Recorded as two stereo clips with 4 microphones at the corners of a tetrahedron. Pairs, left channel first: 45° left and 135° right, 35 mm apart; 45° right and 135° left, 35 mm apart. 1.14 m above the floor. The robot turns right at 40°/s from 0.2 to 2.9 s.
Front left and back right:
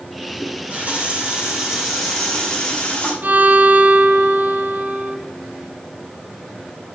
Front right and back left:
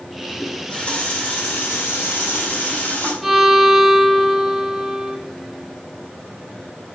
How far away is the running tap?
About 5 m.